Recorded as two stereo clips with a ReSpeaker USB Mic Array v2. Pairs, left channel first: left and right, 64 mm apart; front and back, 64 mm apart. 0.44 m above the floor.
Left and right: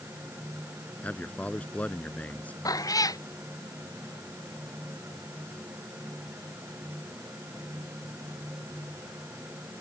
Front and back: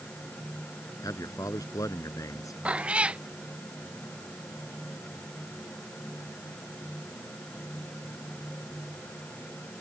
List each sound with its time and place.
1.0 s a man speaking: 25° left
2.6 s a cat meowing: 110° left